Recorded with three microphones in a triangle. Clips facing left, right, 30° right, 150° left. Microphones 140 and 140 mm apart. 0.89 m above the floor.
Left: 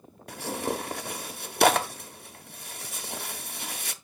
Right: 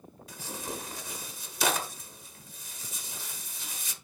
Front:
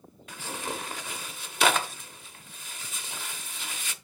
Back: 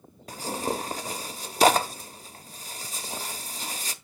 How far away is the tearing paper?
About 0.9 m.